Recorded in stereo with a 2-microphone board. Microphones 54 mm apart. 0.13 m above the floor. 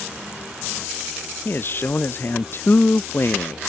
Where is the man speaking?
45° left (ahead or behind).